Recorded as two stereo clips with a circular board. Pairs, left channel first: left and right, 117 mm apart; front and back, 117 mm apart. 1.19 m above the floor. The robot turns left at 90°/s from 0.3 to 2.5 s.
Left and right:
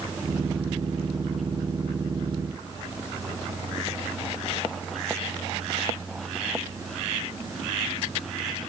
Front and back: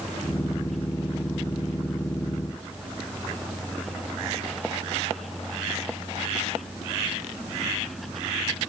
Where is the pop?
No pop in this recording.